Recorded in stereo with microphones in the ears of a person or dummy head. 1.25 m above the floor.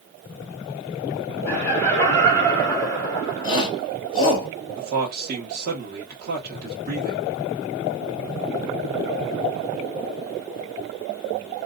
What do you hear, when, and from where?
1.5 s laughter: 15° left (ahead or behind), 2.5 m
3.4 s a shout: 30° left (ahead or behind), 1.9 m
4.8 s a man speaking: 45° right (ahead or behind), 1.1 m